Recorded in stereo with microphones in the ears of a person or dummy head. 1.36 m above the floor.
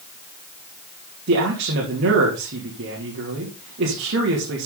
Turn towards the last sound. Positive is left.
turn(degrees=-55)  # may be behind; listen again after turning